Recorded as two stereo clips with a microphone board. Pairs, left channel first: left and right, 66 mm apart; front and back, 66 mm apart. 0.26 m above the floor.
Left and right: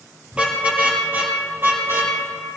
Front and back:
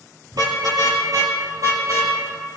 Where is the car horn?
160° right, 3 m; by 2.1 s 135° right, 4 m.